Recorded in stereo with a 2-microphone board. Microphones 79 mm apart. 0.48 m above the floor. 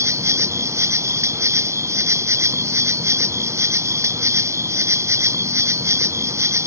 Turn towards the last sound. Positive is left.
turn(degrees=-35)  # may be behind; listen again after turning